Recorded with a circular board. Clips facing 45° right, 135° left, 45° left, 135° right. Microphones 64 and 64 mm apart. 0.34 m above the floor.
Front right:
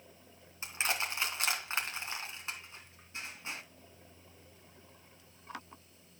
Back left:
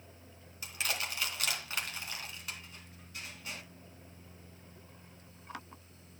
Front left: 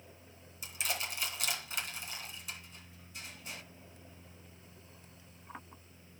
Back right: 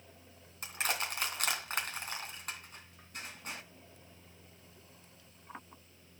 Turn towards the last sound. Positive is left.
turn(degrees=-105)